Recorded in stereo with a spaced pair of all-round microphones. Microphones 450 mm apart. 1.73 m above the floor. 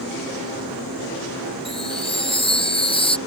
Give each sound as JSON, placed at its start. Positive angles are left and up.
{"t": 1.6, "sound": "a chime", "side_deg": 10}